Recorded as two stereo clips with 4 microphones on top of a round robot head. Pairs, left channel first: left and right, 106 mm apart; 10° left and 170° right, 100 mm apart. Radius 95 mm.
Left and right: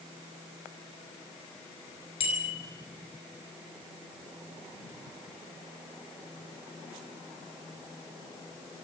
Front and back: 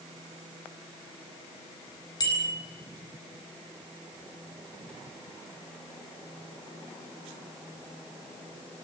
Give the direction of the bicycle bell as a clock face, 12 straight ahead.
10 o'clock.